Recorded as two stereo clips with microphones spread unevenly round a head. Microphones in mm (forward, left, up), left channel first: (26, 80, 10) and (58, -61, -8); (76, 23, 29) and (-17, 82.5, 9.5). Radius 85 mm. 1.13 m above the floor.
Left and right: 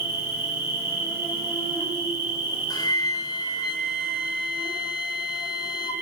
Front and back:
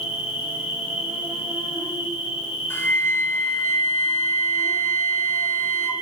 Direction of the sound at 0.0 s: Straight ahead.